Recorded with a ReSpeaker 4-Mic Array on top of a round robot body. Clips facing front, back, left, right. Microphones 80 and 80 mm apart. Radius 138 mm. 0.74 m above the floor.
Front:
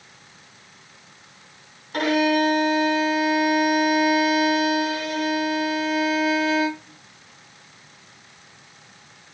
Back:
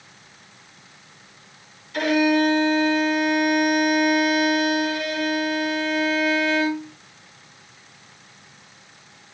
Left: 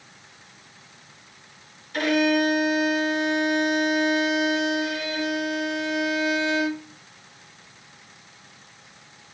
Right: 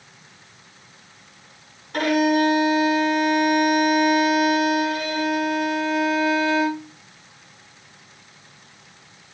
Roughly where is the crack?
I don't hear a crack.